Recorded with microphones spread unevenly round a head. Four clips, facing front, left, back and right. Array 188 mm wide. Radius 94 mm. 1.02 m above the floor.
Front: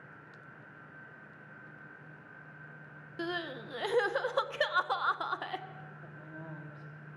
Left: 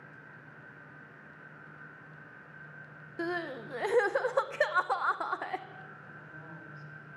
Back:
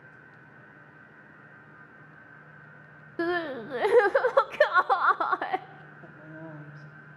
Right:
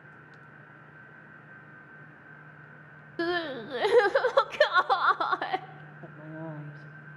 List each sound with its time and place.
3.2 s crying: 155° right, 0.6 m
6.0 s a woman speaking: 105° right, 2 m